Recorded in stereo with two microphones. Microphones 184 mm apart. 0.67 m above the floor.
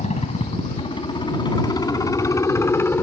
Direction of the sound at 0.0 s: 35° left (ahead or behind).